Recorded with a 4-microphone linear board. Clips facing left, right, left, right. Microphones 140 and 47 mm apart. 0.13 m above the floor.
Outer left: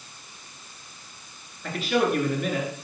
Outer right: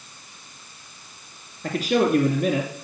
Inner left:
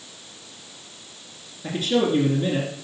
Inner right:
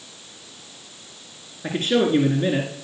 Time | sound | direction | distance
1.6 | a man speaking | 45° right (ahead or behind) | 1.8 m